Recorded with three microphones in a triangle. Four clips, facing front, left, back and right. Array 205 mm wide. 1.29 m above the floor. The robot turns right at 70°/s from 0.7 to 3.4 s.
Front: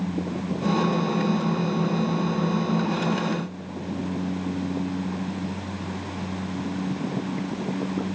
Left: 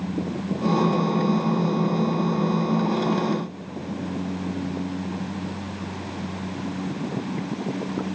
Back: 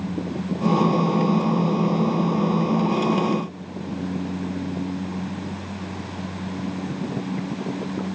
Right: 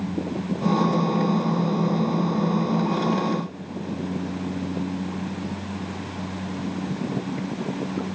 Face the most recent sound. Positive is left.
No sound to turn to.